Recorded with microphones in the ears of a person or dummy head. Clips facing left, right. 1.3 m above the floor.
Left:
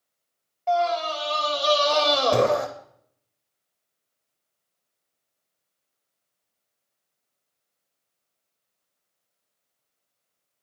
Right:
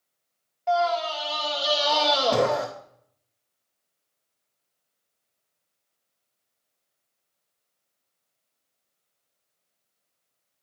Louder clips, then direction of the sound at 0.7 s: Left 1 dB; 5° left (ahead or behind).